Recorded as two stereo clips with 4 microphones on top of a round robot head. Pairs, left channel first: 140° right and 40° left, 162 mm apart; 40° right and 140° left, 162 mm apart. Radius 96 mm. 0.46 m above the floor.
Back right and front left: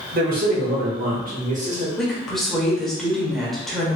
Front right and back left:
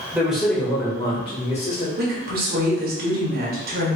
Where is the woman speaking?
130° left, 1.4 m.